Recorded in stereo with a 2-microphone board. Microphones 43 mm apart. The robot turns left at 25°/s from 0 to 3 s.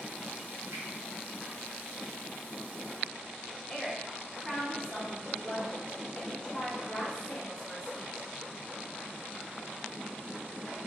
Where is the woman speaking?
20° left (ahead or behind), 0.8 m.